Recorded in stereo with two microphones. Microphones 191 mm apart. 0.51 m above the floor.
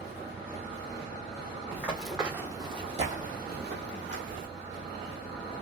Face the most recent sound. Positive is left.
turn(degrees=-70)  # may be behind; listen again after turning